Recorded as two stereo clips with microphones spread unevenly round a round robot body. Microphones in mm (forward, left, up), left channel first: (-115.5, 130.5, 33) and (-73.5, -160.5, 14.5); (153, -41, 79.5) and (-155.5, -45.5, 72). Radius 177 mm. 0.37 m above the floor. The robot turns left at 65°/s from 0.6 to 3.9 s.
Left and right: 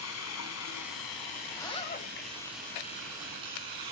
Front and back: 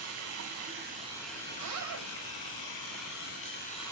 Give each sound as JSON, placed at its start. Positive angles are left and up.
{"t": 0.0, "sound": "running water", "azimuth_deg": 135, "distance_m": 5.0}
{"t": 1.5, "sound": "a zipper", "azimuth_deg": -175, "distance_m": 2.5}